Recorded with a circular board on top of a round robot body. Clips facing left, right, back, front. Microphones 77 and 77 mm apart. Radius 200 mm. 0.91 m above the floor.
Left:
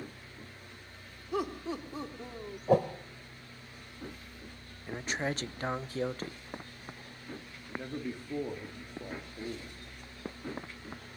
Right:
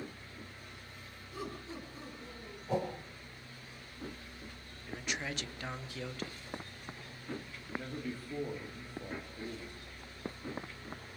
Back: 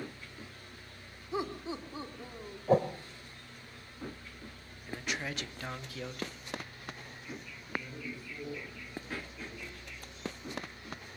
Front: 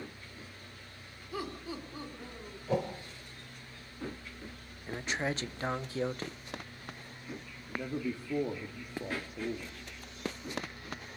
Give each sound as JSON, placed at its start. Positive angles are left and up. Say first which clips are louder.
{"t": 1.3, "sound": "laughter", "louder": "left 9 dB, back 3 dB", "azimuth_deg": 115, "distance_m": 3.5}
{"t": 2.7, "sound": "a whoosh", "louder": "left 9 dB, back 6 dB", "azimuth_deg": 130, "distance_m": 0.8}
{"t": 4.9, "sound": "a man speaking", "louder": "left 5 dB, front 4 dB", "azimuth_deg": 50, "distance_m": 0.9}
{"t": 7.7, "sound": "a man speaking", "louder": "left 2 dB, front 5 dB", "azimuth_deg": 15, "distance_m": 3.0}